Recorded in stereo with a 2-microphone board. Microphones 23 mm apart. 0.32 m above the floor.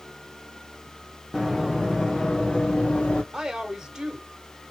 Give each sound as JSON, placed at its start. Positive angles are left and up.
{"t": 1.3, "sound": "running footsteps", "side_deg": 10, "distance_m": 1.5}
{"t": 3.3, "sound": "a woman speaking", "side_deg": -25, "distance_m": 1.3}